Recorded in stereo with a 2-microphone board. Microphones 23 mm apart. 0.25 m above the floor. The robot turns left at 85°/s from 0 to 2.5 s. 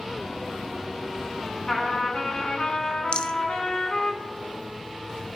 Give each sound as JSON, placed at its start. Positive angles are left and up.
{"t": 1.7, "sound": "a trumpet", "azimuth_deg": 145, "distance_m": 3.0}
{"t": 3.1, "sound": "a rattle", "side_deg": 55, "distance_m": 0.8}